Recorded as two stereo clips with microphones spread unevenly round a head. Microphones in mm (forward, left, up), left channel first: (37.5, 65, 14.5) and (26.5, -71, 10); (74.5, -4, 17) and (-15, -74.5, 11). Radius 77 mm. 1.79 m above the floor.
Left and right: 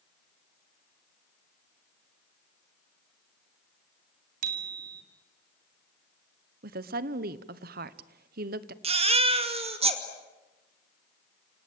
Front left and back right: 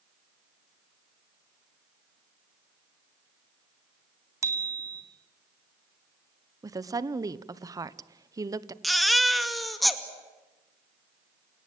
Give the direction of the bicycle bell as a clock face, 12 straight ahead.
3 o'clock.